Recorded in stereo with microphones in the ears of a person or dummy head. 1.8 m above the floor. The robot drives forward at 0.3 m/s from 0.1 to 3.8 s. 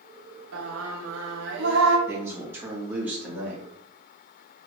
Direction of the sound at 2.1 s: 15° right (ahead or behind).